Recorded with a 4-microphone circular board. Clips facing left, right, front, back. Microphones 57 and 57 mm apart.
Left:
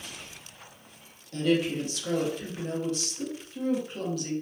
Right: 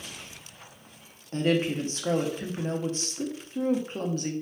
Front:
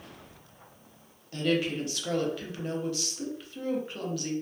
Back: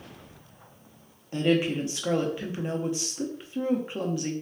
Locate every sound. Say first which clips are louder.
1.3 s a woman speaking: even, back 4 dB; 120° right, 0.5 m